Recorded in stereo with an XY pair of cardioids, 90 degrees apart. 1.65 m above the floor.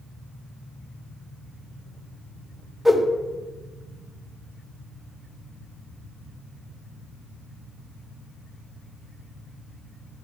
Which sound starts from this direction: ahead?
A whoosh, at 2.9 s.